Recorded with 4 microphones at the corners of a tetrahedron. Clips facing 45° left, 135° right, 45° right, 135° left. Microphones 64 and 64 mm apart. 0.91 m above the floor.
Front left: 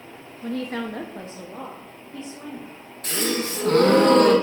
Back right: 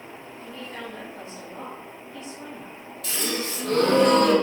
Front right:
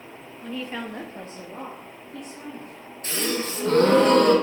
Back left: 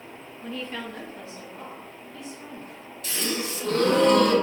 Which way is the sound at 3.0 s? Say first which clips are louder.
Front left 4 dB, front right 3 dB; 5° left.